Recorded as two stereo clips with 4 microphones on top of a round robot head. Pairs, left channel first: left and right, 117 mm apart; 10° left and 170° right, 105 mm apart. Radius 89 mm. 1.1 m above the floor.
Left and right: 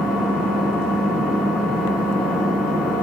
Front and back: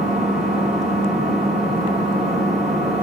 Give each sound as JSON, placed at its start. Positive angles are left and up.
{"t": 0.0, "sound": "an engine running", "azimuth_deg": -175, "distance_m": 2.0}